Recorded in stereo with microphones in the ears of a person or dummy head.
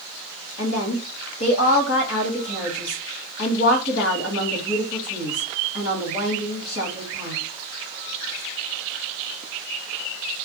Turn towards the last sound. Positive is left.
turn(degrees=75)  # may be behind; listen again after turning